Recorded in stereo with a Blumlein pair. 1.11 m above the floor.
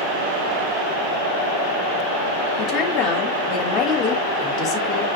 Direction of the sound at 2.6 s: 30° left.